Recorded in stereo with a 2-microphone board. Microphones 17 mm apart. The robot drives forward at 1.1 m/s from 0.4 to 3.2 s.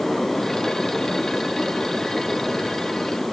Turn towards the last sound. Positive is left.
No sound to turn to.